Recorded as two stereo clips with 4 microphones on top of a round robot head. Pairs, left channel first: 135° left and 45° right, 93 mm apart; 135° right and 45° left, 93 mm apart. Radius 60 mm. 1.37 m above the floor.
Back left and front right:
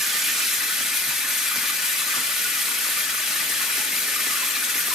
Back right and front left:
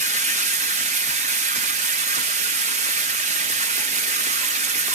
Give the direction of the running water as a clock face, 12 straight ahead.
11 o'clock.